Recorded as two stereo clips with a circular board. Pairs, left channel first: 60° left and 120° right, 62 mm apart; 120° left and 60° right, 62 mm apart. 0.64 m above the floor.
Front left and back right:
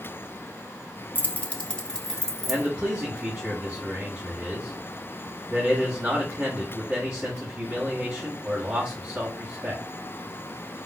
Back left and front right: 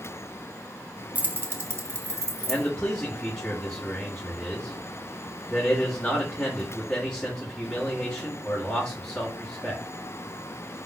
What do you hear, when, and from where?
1.1 s keys jangling: straight ahead, 0.6 m; by 2.7 s 25° right, 1.4 m
2.5 s a man speaking: straight behind, 1.3 m